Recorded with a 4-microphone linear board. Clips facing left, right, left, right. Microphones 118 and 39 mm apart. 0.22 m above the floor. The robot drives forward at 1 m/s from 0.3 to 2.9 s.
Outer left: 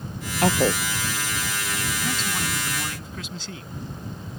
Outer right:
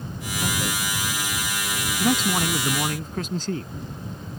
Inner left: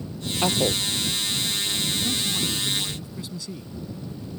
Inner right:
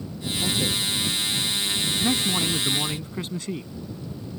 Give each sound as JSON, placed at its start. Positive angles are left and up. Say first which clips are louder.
{"t": 0.4, "sound": "a woman speaking", "louder": "outer left 8 dB, inner left 3 dB", "side_deg": 80}
{"t": 2.0, "sound": "a man speaking", "louder": "outer right 12 dB, inner right 3 dB", "side_deg": -50}